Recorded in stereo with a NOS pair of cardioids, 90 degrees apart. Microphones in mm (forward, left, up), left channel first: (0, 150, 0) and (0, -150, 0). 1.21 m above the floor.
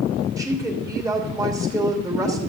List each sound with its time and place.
0.4 s a woman speaking: 10° right, 2.5 m